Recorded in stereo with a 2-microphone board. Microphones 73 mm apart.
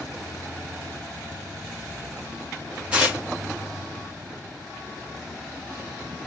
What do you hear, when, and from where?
2.9 s tearing paper: 15° right (ahead or behind), 1.2 m